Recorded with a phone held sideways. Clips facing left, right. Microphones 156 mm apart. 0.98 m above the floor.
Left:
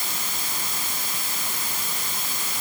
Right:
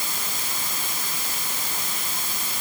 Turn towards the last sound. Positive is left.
No sound to turn to.